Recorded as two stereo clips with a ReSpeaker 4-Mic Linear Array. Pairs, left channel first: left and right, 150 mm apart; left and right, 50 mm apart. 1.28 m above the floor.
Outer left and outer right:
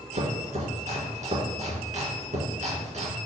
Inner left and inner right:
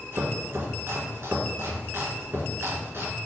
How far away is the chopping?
About 2.5 m.